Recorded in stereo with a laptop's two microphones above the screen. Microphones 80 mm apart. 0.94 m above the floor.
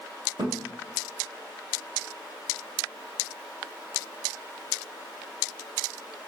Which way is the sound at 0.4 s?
65° right (ahead or behind).